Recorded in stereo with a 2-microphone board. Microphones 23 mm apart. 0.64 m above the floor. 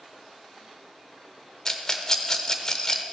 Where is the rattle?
25° left (ahead or behind), 0.7 m.